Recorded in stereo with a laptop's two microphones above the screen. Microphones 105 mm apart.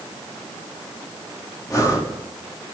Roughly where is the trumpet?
I don't hear a trumpet.